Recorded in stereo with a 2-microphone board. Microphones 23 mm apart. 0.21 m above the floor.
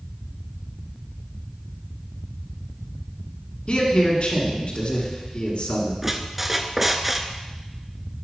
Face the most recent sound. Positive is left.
turn(degrees=-10)  # may be behind; listen again after turning